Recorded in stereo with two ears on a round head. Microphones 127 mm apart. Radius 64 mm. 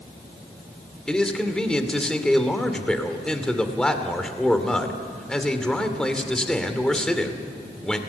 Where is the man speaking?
5° left (ahead or behind), 2.5 m.